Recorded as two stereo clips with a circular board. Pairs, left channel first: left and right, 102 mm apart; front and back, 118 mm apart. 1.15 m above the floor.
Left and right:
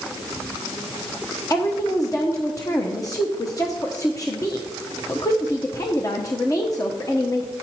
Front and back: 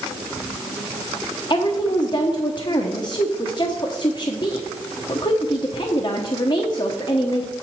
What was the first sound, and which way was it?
A woman speaking, 40° left.